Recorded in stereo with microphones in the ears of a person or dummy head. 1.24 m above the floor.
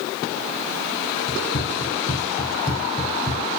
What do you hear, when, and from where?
1.3 s running footsteps: 30° left (ahead or behind), 2.5 m; by 3.4 s 5° left (ahead or behind), 3 m